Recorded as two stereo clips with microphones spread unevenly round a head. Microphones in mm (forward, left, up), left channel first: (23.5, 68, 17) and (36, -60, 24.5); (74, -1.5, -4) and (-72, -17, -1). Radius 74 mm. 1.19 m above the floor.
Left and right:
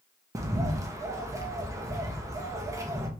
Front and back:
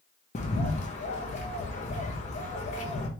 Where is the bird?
20° right, 1.0 m.